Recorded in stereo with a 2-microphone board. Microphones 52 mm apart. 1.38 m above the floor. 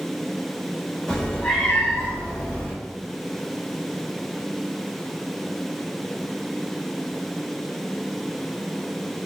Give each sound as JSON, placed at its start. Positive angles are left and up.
{"t": 1.1, "sound": "a cat meowing", "side_deg": 15, "distance_m": 0.9}